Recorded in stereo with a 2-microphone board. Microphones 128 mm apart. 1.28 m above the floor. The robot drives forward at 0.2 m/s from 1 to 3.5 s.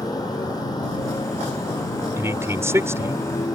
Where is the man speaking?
20° right (ahead or behind).